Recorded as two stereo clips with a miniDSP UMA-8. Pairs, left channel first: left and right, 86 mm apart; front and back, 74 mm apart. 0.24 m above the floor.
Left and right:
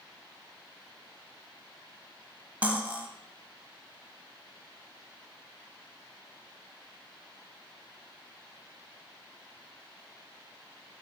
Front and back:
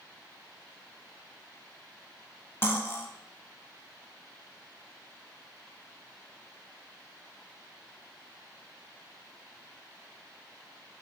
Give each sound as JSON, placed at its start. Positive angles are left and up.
{"t": 2.6, "sound": "cutlery clinking", "azimuth_deg": -30, "distance_m": 0.6}